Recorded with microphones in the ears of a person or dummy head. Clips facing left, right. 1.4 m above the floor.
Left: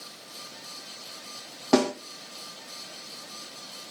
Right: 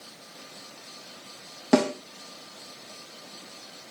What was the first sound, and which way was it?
A snare drum, 20° right (ahead or behind).